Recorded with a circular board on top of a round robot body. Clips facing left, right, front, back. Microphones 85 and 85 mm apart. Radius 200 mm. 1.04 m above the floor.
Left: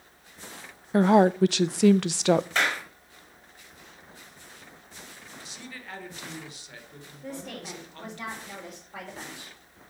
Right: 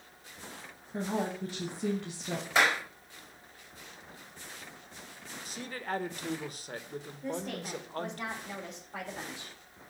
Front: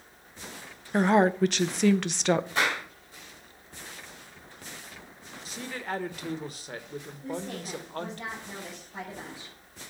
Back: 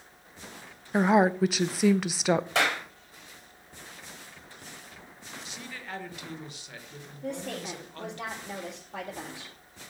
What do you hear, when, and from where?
0.9 s a woman speaking: 95° left, 0.6 m
2.5 s a clap: 170° right, 5.5 m
5.5 s a man speaking: 45° right, 1.7 m
7.2 s a woman speaking: 175° right, 4.5 m